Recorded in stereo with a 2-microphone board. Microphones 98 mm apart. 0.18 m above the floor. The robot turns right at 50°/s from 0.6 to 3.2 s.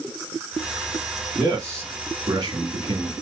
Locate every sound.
1.4 s a man speaking: 150° right, 1.4 m; by 3.1 s 65° right, 1.4 m